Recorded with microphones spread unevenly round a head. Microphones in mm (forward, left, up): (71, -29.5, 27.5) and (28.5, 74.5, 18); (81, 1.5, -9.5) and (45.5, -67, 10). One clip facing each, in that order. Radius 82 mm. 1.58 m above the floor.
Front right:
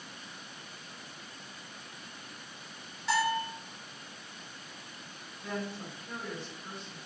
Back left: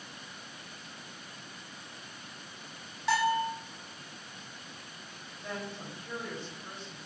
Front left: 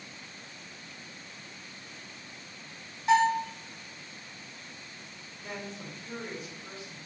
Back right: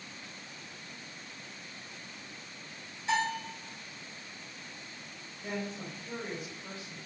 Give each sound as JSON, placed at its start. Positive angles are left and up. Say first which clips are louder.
{"t": 3.1, "sound": "a bell", "louder": "back left 2 dB, front left 8 dB", "azimuth_deg": 125, "distance_m": 1.1}
{"t": 5.4, "sound": "a woman speaking", "louder": "front right 2 dB, back right 3 dB", "azimuth_deg": -165, "distance_m": 1.5}